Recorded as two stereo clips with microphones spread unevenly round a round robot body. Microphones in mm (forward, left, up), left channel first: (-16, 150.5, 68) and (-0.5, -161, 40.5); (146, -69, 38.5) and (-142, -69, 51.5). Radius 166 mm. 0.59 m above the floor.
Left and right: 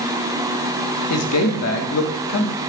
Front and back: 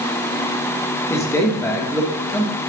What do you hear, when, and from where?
1.1 s a man speaking: 75° left, 1.4 m